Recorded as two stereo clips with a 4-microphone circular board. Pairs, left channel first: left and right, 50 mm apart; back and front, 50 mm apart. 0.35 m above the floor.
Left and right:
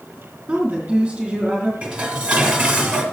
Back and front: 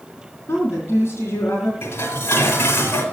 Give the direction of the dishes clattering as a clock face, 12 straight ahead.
5 o'clock.